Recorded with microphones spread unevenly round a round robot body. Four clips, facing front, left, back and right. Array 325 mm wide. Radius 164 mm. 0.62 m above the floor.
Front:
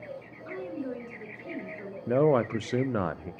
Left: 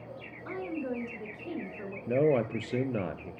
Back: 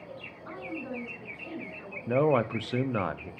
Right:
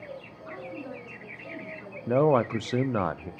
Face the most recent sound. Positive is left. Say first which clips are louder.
# right 4 dB, front 1 dB
turn(degrees=-75)